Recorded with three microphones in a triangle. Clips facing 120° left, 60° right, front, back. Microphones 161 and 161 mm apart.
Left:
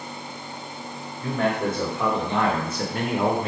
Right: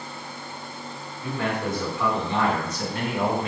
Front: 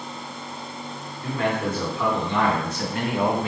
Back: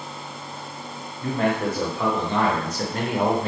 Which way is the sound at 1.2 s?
130° left.